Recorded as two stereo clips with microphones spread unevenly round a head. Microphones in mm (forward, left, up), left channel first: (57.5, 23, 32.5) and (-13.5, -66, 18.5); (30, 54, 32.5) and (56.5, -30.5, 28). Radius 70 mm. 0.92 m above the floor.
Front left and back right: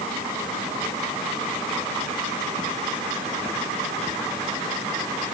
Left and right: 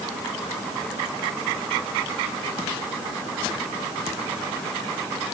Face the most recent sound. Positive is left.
No sound to turn to.